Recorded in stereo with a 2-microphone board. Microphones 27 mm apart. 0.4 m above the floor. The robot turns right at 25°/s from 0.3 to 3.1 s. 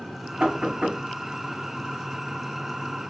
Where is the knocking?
60° right (ahead or behind), 1.1 m; by 1.0 s 65° right (ahead or behind), 1.1 m.